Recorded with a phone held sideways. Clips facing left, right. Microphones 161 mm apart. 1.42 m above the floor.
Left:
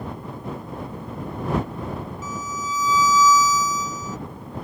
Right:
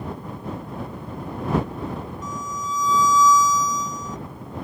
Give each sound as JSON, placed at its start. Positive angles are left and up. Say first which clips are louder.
{"t": 2.2, "sound": "a violin", "louder": "even", "side_deg": 5}